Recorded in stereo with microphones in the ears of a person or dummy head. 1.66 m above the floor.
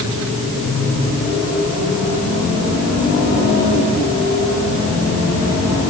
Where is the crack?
No crack in this recording.